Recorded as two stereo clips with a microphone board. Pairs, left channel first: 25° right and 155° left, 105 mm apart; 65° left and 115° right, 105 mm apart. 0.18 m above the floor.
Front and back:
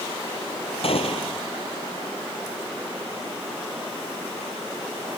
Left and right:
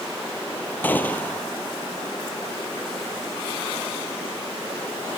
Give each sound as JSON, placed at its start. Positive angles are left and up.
{"t": 0.8, "sound": "a gunshot", "azimuth_deg": -5}